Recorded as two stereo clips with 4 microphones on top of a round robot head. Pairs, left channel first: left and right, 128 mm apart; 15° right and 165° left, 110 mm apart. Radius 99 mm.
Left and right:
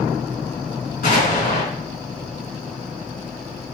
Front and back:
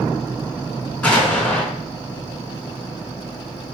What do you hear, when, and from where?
1.0 s an explosion: 65° left, 4.5 m